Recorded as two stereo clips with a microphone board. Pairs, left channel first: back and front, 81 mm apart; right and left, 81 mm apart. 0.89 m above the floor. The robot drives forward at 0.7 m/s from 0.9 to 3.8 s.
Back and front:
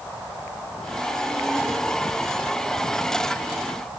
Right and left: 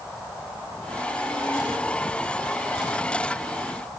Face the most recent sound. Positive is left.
No sound to turn to.